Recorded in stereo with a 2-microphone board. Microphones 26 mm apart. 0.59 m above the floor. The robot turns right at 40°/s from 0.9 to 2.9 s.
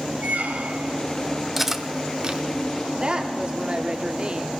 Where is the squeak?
85° right, 1.5 m.